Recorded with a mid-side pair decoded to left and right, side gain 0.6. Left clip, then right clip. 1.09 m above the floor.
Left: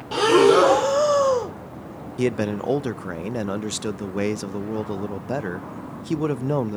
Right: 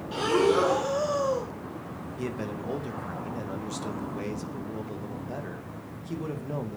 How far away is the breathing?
About 1.0 m.